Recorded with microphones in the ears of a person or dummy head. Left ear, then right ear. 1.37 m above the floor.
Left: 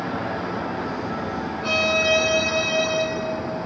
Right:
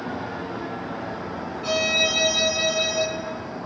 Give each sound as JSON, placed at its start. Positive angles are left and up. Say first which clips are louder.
{"t": 1.6, "sound": "a violin", "louder": "left 1 dB", "side_deg": -15, "distance_m": 1.5}